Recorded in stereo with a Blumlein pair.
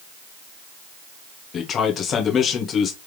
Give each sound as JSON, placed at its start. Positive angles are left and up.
{"t": 1.5, "sound": "a man speaking", "azimuth_deg": 25, "distance_m": 1.2}